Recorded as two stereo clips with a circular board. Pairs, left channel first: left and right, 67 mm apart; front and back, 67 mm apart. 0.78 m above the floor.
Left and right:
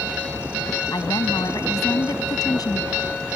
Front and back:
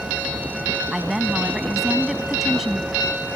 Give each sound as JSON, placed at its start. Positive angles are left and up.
{"t": 0.9, "sound": "a woman speaking", "azimuth_deg": 95}